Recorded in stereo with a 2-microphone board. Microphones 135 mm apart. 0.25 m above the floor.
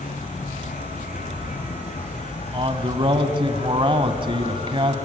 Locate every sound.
0.0 s an insect: 80° left, 5 m
2.5 s a man speaking: 40° right (ahead or behind), 1.4 m